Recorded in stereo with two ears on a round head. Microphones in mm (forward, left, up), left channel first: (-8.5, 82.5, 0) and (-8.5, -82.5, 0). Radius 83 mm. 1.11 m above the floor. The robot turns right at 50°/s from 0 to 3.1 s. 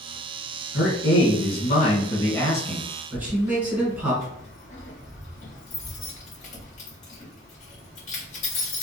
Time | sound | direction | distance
0.7 | a man speaking | 75° left | 1.4 m
3.1 | keys jangling | 40° left (ahead or behind) | 1.6 m